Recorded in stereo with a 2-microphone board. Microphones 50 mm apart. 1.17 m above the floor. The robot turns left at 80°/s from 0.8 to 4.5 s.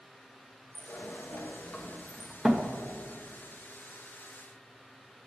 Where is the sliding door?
40° left (ahead or behind), 0.8 m; by 2.7 s 25° right (ahead or behind), 0.8 m.